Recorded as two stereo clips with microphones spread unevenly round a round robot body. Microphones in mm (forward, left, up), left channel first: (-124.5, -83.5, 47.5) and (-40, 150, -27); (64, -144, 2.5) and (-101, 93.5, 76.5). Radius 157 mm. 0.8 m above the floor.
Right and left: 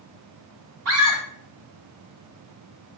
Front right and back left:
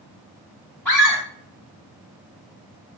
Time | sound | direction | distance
0.8 | a scream | 30° left | 2.5 m